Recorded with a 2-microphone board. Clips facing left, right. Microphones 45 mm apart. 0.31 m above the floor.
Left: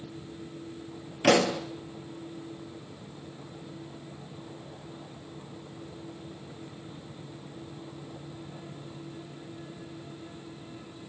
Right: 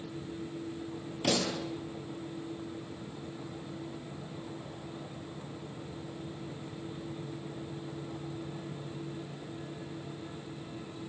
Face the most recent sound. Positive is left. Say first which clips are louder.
# left 9 dB
turn(degrees=55)  # may be behind; listen again after turning